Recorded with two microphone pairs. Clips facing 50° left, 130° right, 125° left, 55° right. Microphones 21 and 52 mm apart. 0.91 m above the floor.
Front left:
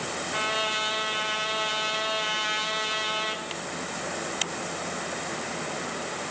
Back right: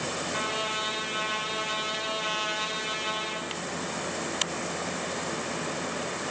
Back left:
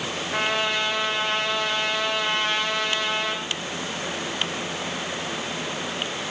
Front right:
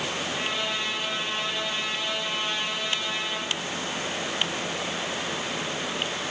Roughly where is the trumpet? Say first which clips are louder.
Front left 5 dB, back left 9 dB; behind left.